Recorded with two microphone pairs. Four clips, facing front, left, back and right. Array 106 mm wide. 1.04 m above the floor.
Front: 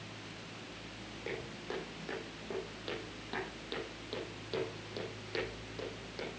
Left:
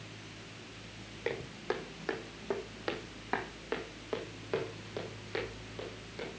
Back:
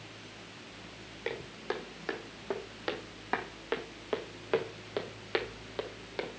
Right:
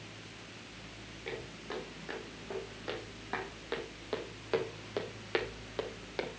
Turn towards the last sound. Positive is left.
turn(degrees=-130)